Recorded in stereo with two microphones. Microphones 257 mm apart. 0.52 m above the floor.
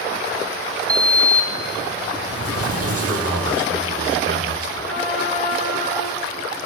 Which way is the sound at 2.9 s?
60° right (ahead or behind).